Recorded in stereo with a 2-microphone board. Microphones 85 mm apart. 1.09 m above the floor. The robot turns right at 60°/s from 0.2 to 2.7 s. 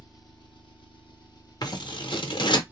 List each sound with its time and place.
0.0 s an engine running: 50° left, 0.7 m; by 2.7 s 160° right, 0.7 m
1.6 s scissors: 55° left (ahead or behind), 0.6 m; by 2.6 s 60° left (ahead or behind), 0.6 m